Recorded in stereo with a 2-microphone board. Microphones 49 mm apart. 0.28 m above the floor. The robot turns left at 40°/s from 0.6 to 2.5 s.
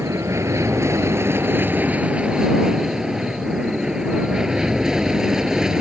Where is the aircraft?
95° right; by 5.8 s 170° right.